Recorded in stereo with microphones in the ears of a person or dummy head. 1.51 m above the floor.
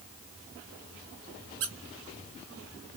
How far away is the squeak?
About 1.1 m.